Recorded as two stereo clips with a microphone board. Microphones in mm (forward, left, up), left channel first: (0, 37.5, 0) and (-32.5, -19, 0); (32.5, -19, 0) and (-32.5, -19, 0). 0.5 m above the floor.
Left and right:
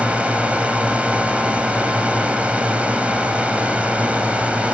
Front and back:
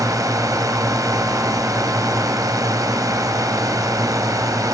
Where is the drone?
170° left.